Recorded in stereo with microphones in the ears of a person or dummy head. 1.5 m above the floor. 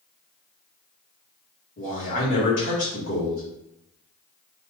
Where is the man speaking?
45° left (ahead or behind), 1.6 m.